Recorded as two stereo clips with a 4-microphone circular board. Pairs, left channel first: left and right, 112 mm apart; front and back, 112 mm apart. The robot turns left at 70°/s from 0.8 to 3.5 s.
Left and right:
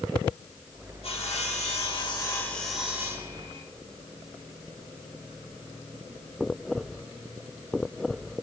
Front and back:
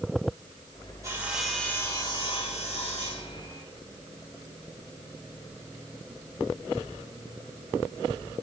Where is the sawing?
115° left, 4 m; by 3.6 s 55° right, 4 m.